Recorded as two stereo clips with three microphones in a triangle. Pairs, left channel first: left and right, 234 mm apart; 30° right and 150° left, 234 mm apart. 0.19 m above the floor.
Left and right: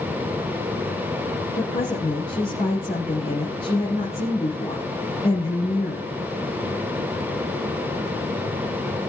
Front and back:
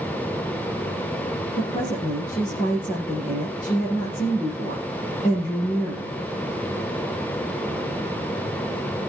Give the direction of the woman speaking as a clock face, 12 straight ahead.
11 o'clock.